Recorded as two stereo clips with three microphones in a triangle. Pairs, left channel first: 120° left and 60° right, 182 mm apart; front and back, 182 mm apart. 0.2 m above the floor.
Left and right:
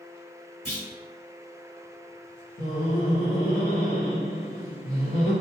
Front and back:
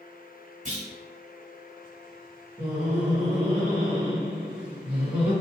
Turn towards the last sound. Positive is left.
turn(degrees=105)